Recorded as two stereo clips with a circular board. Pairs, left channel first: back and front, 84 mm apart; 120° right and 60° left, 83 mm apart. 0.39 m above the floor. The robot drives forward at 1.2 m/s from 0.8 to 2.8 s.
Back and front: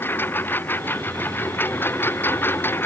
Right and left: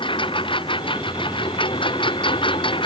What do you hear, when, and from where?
0.0 s a lawn mower: 115° right